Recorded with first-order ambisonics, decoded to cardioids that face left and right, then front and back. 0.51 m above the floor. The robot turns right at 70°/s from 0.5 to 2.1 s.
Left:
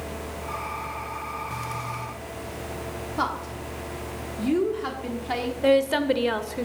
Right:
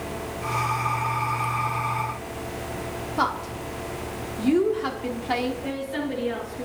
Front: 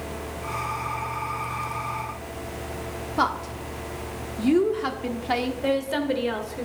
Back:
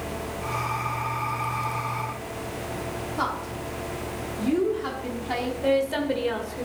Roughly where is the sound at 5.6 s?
Left.